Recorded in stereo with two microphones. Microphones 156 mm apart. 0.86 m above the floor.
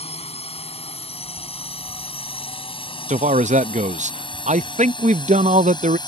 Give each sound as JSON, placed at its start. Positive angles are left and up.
{"t": 0.0, "sound": "a drone", "side_deg": 40}
{"t": 3.1, "sound": "a man speaking", "side_deg": -50}